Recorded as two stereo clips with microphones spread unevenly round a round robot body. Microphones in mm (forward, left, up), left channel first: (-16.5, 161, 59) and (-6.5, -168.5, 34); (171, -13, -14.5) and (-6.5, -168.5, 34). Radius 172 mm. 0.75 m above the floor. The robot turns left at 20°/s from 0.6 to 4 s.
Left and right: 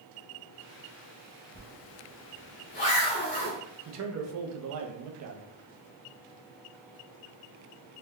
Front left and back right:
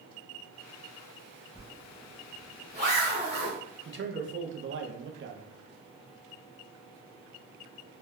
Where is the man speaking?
95° right, 0.7 m; by 5.5 s 100° right, 0.7 m.